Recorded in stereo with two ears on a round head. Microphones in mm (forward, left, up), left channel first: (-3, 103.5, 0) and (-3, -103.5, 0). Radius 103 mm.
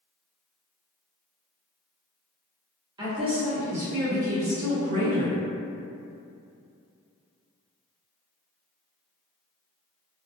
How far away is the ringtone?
No ringtone in this recording.